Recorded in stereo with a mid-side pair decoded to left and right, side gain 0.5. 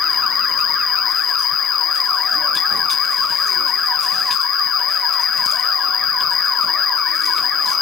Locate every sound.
0.0 s an insect: 60° left